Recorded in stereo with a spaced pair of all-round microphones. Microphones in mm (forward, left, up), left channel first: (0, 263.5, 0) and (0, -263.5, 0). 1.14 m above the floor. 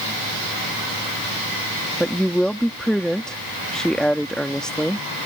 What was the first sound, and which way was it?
A woman speaking, centre (ahead or behind).